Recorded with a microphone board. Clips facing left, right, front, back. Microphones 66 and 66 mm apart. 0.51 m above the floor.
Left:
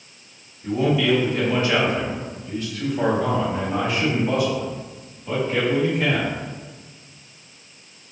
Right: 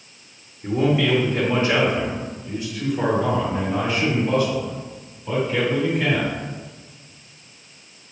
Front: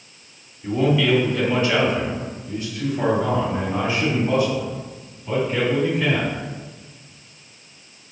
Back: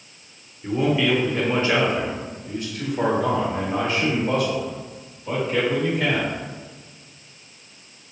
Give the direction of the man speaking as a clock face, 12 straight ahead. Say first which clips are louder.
Even, front 2 dB; 4 o'clock.